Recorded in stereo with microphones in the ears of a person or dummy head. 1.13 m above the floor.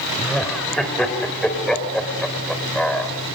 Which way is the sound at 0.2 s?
Centre (ahead or behind).